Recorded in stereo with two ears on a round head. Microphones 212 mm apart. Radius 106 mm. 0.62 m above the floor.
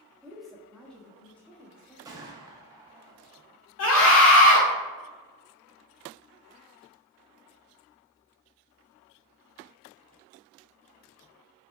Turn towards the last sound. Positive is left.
turn(degrees=60)  # may be behind; listen again after turning